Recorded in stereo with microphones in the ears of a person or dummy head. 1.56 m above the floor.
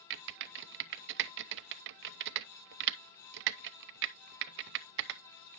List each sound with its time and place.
0.1 s typing on a keyboard: 60° right (ahead or behind), 0.6 m